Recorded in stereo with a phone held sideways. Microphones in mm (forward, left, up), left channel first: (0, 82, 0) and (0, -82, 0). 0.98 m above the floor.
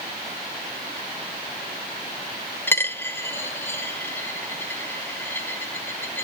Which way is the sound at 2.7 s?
15° left (ahead or behind).